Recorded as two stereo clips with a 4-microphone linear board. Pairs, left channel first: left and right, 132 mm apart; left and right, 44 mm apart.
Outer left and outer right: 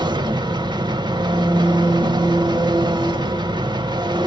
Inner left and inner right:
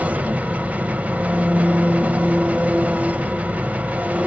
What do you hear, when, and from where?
0.0 s an engine running: 35° right (ahead or behind), 0.9 m